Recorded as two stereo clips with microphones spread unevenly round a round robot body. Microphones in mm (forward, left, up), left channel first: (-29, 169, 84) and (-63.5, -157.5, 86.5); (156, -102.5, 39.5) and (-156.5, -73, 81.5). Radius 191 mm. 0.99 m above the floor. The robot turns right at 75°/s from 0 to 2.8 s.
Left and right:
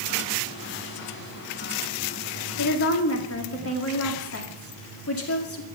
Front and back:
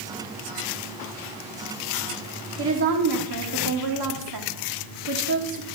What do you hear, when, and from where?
2.6 s a woman speaking: 115° left, 2 m; by 5.7 s 130° left, 2 m